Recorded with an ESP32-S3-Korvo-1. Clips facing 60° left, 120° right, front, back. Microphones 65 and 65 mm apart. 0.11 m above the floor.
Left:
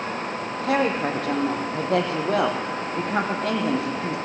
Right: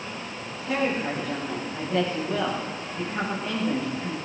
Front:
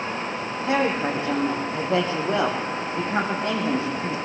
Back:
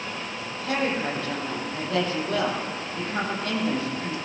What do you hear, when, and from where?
0.6 s a woman speaking: 65° left, 5 m